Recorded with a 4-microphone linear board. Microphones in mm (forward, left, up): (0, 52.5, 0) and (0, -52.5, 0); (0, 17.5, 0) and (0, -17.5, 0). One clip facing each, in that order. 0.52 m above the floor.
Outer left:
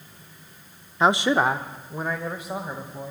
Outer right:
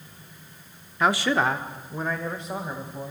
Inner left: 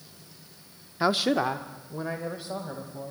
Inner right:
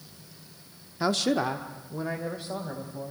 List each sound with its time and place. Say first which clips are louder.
1.0 s a man speaking: outer left 2 dB, inner left 2 dB; 20° left (ahead or behind), 0.7 m; by 3.1 s 5° left (ahead or behind), 3 m